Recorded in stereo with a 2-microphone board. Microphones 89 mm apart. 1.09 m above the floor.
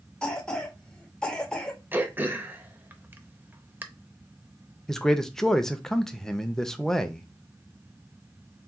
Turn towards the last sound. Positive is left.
turn(degrees=5)  # may be behind; listen again after turning